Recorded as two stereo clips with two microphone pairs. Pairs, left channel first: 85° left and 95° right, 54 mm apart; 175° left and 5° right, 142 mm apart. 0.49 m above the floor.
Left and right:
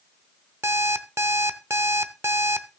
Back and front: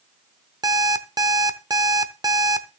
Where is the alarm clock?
65° right, 0.7 m.